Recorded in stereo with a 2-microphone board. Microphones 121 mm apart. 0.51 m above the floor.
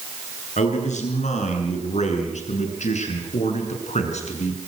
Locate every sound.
0.6 s a man speaking: 80° left, 8 m; by 4.6 s 70° left (ahead or behind), 6.5 m